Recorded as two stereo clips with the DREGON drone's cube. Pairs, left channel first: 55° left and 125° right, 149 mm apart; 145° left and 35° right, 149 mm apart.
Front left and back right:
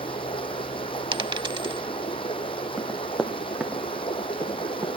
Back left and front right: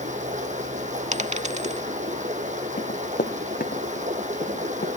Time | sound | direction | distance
0.0 | running water | straight ahead | 2.5 m
1.1 | a dropped coin | 70° right | 0.5 m
2.8 | running footsteps | 135° left | 1.9 m